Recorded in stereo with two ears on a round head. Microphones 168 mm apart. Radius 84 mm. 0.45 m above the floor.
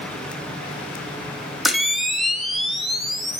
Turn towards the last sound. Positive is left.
turn(degrees=0)  # may be behind; listen again after turning